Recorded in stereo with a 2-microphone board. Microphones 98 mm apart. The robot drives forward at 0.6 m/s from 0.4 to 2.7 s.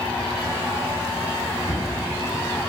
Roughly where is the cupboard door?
Left.